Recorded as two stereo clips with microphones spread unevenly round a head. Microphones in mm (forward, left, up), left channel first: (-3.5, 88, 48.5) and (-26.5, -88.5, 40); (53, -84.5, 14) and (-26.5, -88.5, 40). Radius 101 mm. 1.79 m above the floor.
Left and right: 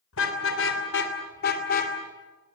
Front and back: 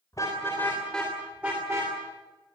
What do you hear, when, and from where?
0.1 s a car horn: 85° left, 3.5 m; by 1.9 s 125° left, 2.5 m